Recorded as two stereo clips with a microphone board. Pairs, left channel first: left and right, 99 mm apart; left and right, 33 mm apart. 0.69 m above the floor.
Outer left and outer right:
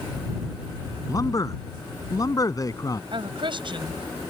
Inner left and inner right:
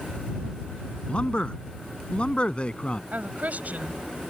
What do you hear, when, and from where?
1.1 s a man speaking: 40° left (ahead or behind)
3.1 s a woman speaking: 60° right (ahead or behind)